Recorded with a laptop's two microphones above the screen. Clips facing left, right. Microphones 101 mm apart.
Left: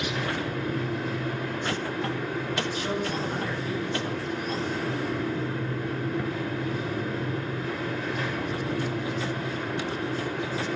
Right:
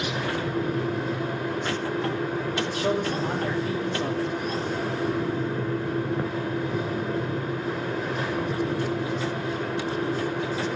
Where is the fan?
30° right (ahead or behind), 1.5 m.